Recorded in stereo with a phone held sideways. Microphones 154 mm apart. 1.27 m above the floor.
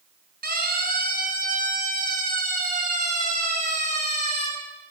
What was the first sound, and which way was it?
A siren, 65° right (ahead or behind).